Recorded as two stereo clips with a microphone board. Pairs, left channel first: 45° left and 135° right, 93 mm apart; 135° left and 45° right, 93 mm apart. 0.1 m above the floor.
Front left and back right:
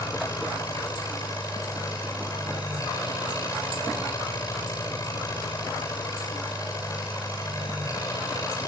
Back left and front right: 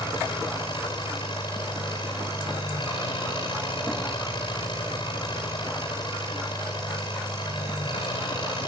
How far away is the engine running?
About 9.5 m.